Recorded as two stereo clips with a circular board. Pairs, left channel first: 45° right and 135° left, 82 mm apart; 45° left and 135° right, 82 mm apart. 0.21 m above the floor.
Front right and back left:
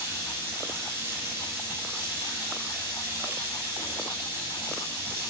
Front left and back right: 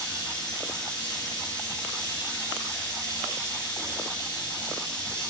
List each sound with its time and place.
0.0 s running water: 75° left, 3.5 m